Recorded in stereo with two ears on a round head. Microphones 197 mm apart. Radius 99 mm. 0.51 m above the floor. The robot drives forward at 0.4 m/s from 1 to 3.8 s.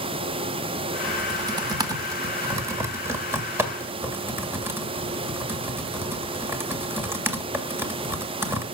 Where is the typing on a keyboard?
20° right (ahead or behind), 1.1 m; by 8.6 s 10° right (ahead or behind), 2.0 m.